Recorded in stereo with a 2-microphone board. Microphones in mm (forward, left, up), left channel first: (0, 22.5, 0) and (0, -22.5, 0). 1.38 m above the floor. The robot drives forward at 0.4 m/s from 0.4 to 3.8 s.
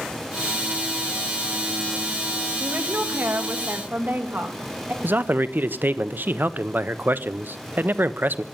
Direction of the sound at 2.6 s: 60° right (ahead or behind).